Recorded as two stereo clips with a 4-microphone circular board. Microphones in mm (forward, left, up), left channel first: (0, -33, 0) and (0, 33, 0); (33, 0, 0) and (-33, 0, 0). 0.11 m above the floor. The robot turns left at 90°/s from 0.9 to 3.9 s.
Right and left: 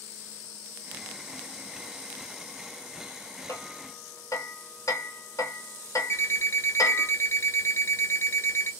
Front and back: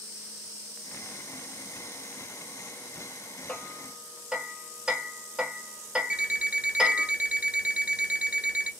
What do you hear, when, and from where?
3.5 s hammering: 65° right, 0.8 m; by 7.1 s 100° right, 0.8 m
6.1 s an alarm clock: 115° right, 0.8 m